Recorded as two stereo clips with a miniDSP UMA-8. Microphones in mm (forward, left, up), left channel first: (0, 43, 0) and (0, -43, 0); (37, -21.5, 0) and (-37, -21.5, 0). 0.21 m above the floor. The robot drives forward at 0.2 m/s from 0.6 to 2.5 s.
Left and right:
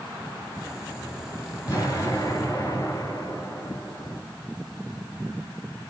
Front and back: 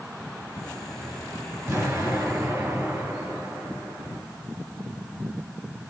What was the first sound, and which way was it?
An explosion, 140° left.